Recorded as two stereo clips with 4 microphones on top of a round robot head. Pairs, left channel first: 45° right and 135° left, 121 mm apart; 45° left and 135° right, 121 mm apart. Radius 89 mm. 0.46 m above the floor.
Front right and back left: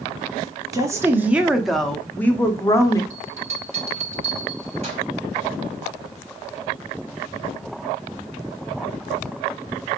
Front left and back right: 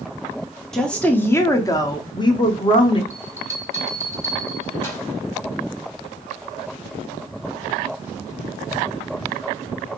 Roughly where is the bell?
Behind left.